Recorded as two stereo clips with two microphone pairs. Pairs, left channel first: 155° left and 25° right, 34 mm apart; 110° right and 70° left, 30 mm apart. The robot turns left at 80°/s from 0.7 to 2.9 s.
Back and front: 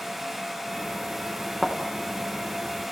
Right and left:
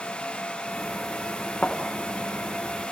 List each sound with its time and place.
1.6 s a thud: 95° right, 3.5 m; by 1.8 s 105° right, 3.5 m